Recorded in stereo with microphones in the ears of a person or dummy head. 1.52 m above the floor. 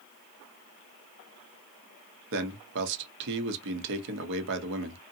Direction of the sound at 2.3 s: 65° right (ahead or behind).